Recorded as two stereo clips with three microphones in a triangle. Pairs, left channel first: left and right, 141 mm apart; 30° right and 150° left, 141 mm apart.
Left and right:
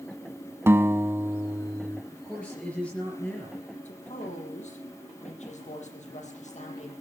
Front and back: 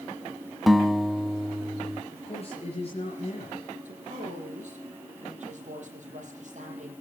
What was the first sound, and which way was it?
A guitar, 120° right.